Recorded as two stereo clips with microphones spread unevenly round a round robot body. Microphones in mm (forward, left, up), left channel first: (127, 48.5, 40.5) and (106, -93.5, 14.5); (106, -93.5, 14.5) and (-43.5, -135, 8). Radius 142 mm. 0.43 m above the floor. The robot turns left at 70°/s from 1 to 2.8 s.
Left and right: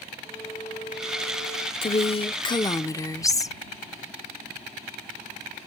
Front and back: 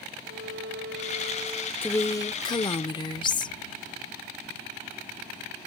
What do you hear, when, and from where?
0.2 s a violin: 155° left; by 1.7 s 105° left
1.8 s a woman speaking: 85° left; by 3.6 s 20° left